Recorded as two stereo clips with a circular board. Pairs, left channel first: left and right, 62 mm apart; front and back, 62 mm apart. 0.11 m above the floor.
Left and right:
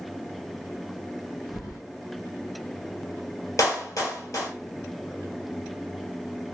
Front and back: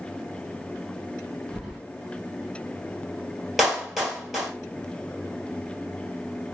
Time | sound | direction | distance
1.5 | keys jangling | 100° left | 2.5 m
3.6 | a clap | 95° left | 2 m